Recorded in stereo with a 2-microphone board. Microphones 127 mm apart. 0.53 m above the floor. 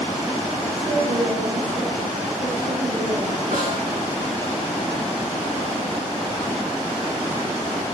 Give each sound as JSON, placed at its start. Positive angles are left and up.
{"t": 0.8, "sound": "a woman speaking", "side_deg": -70, "distance_m": 7.5}
{"t": 3.5, "sound": "a snare drum", "side_deg": -70, "distance_m": 8.5}